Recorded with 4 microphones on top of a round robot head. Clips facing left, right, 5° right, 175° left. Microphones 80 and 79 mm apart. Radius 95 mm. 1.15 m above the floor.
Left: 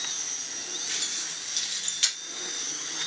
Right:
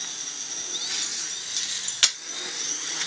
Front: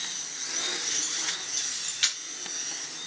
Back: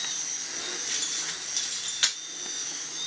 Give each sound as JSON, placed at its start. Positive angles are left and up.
{"t": 0.9, "sound": "keys jangling", "azimuth_deg": -170, "distance_m": 2.0}